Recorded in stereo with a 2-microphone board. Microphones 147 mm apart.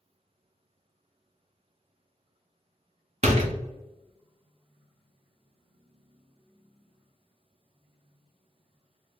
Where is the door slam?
50° right (ahead or behind), 0.7 m.